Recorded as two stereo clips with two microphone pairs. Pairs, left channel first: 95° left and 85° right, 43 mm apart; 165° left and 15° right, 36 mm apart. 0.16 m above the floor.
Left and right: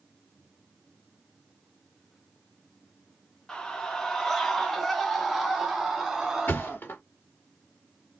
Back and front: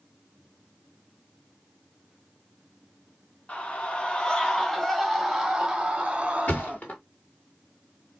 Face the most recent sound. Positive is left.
turn(degrees=130)